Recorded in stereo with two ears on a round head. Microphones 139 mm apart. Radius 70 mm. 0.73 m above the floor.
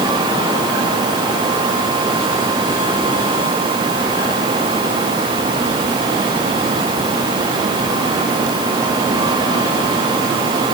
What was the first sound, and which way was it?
Only background noise.